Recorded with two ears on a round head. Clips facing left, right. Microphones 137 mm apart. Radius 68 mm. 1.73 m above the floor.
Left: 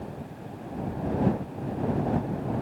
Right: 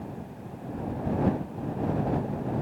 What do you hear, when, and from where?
Only background noise.